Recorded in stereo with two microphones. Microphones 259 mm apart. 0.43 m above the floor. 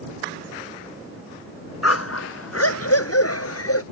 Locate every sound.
1.8 s a dog barking: 70° left (ahead or behind); by 3.8 s 65° left (ahead or behind)